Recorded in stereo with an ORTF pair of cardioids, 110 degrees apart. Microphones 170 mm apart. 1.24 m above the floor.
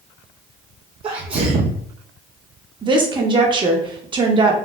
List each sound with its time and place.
1.0 s a sneeze: 35° right, 0.5 m
2.8 s a woman speaking: 30° right, 0.9 m